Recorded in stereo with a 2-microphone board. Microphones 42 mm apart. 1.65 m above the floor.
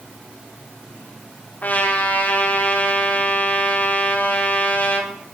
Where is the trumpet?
45° left (ahead or behind), 3.5 m.